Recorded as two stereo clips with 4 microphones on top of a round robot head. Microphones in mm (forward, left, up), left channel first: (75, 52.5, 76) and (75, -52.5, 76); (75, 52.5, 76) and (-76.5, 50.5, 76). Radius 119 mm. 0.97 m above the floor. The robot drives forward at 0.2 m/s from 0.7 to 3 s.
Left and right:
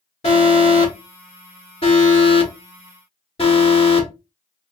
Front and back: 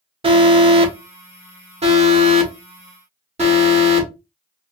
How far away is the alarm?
About 2 m.